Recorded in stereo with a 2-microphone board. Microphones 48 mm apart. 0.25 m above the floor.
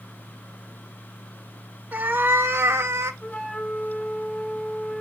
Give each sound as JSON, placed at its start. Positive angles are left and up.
{"t": 1.9, "sound": "a cat meowing", "side_deg": -40, "distance_m": 0.7}
{"t": 3.2, "sound": "a flute", "side_deg": 10, "distance_m": 5.0}